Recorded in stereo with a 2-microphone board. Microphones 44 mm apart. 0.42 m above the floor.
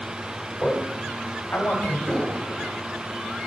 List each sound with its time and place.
0.6 s a man speaking: 35° left (ahead or behind), 1.9 m
2.1 s an explosion: 5° left (ahead or behind), 1.9 m